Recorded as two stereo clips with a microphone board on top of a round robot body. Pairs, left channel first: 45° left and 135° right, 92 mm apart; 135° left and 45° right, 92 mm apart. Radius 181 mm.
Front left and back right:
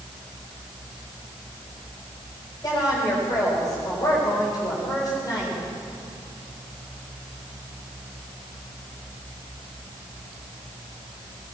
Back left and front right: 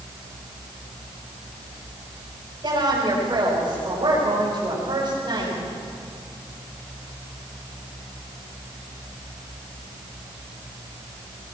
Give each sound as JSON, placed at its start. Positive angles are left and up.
{"t": 2.6, "sound": "a woman speaking", "azimuth_deg": 0, "distance_m": 7.0}